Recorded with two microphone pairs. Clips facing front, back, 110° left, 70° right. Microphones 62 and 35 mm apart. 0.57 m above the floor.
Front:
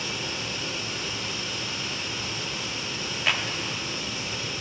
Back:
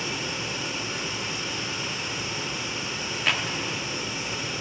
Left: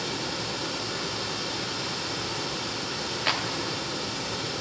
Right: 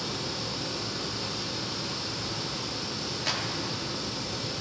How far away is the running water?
About 0.9 m.